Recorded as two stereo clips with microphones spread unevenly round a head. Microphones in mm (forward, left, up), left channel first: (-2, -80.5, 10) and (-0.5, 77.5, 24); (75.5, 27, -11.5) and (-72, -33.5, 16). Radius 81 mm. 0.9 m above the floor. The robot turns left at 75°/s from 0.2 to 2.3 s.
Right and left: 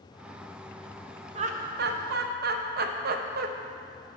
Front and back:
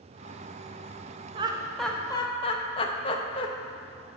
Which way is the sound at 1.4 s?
140° left.